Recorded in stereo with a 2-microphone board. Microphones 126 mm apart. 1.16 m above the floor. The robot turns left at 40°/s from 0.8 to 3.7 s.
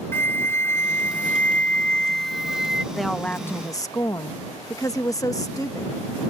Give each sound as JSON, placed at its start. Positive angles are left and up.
{"t": 0.1, "sound": "a flute", "side_deg": 15}
{"t": 2.9, "sound": "a woman speaking", "azimuth_deg": 180}